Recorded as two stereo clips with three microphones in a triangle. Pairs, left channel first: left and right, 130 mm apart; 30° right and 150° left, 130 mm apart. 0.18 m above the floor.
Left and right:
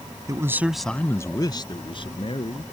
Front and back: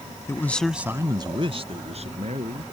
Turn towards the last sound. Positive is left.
turn(degrees=130)